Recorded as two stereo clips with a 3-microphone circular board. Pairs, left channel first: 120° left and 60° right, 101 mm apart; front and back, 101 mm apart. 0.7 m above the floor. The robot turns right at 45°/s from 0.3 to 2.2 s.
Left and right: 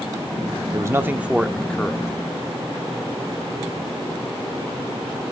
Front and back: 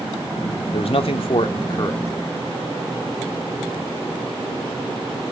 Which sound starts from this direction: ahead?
A man speaking, at 0.7 s.